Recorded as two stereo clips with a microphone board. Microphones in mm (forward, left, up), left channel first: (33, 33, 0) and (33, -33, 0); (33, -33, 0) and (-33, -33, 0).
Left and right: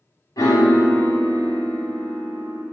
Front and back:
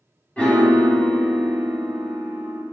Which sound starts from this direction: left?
A piano, at 0.4 s.